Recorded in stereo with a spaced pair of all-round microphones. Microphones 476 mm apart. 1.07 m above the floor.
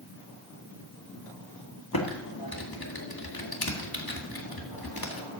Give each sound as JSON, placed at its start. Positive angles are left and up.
{"t": 1.9, "sound": "typing on a keyboard", "side_deg": 50, "distance_m": 1.8}